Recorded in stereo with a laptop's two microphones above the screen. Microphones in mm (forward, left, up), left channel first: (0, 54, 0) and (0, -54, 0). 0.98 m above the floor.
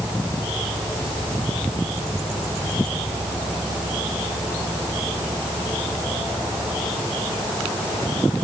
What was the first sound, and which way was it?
Only background noise.